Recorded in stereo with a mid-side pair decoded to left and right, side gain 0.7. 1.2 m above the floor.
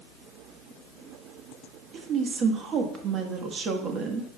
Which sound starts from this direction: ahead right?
A woman speaking, at 1.9 s.